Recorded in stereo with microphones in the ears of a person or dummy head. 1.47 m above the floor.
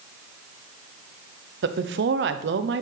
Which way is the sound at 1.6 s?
65° right (ahead or behind).